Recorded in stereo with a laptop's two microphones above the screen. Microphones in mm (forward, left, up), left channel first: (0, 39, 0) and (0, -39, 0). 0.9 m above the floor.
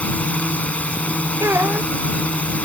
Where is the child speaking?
35° right (ahead or behind).